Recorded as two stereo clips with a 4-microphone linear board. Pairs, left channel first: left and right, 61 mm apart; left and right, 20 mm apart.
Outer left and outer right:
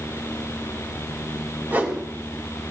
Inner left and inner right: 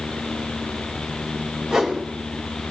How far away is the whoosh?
About 3.5 m.